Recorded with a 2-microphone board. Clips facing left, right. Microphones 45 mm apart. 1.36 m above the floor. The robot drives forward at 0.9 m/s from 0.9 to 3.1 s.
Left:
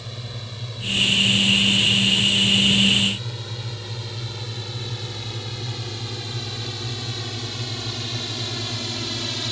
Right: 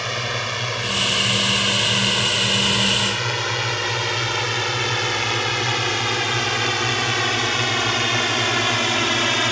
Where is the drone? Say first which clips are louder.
Right 13 dB; 75° right (ahead or behind); by 9.5 s 60° right (ahead or behind).